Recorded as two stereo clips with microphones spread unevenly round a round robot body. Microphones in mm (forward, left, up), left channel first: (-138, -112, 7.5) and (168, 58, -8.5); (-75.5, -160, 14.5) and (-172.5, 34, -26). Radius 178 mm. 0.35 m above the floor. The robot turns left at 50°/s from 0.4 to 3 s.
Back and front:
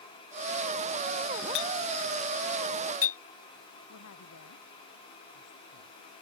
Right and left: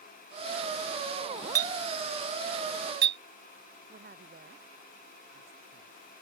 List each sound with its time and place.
1.6 s a clink: 145° right; by 3.2 s 145° left
3.9 s a woman speaking: 160° left